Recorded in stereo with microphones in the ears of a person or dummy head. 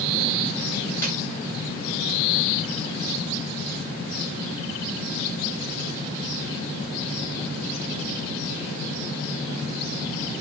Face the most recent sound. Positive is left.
turn(degrees=15)  # may be behind; listen again after turning